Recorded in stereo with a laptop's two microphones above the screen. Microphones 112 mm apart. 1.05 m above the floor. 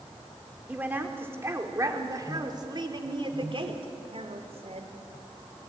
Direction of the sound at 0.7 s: 15° right (ahead or behind).